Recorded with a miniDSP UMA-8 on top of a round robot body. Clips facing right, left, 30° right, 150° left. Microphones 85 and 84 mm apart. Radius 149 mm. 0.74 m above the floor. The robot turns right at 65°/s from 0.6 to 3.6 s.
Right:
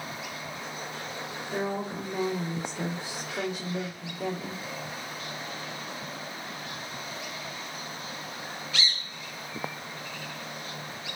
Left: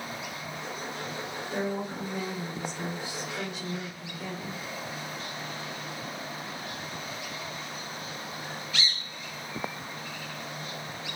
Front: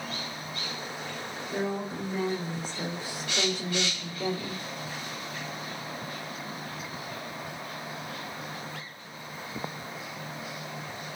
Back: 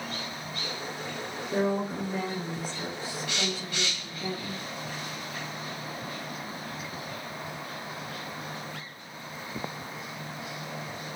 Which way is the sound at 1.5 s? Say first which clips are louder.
Right 1 dB, back 4 dB; 170° right.